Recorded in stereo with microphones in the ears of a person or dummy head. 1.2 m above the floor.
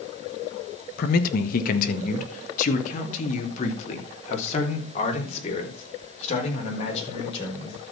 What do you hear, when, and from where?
1.0 s a man speaking: 55° left (ahead or behind), 1.3 m; by 7.9 s 35° left (ahead or behind), 5 m